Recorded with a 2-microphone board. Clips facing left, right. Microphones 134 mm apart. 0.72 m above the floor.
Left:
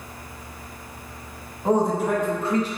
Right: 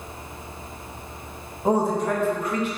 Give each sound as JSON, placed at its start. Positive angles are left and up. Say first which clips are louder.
{"t": 1.6, "sound": "a man speaking", "louder": "left 1 dB", "side_deg": -15, "distance_m": 0.5}